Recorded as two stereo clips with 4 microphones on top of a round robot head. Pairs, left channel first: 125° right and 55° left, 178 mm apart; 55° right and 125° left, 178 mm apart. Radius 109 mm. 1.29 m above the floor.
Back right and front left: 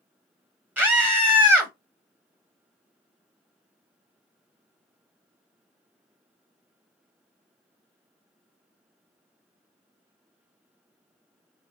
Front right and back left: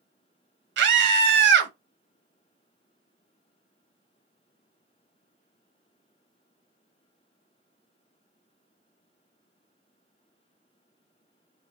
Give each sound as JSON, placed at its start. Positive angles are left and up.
{"t": 0.8, "sound": "a scream", "azimuth_deg": 135, "distance_m": 0.7}